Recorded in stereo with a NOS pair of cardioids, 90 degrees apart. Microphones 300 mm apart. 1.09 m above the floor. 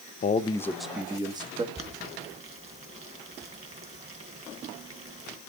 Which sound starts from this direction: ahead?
Boiling, at 1.8 s.